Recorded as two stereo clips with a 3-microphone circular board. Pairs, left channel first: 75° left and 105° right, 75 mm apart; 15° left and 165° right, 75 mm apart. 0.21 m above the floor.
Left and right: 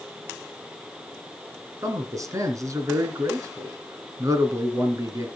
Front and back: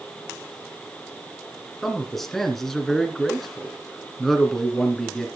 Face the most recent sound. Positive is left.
turn(degrees=-70)